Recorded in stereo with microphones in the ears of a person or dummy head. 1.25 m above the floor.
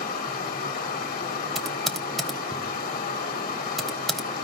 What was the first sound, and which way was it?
Running water, 40° left (ahead or behind).